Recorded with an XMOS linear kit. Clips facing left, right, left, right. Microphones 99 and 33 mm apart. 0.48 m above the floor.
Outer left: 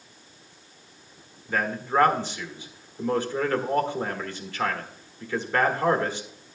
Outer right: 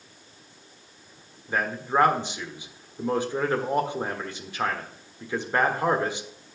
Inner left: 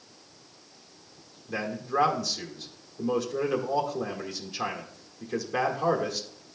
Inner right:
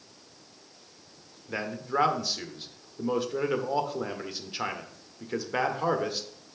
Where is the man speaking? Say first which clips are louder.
Even, inner left 1 dB; 15° right (ahead or behind), 1.4 m.